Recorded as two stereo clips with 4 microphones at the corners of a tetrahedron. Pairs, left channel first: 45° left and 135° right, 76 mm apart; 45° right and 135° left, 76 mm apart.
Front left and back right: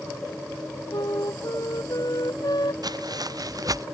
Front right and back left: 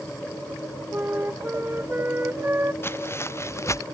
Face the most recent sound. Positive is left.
turn(degrees=-95)